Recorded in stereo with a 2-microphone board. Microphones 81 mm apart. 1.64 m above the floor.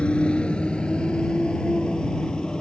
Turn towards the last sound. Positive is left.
turn(degrees=10)  # may be behind; listen again after turning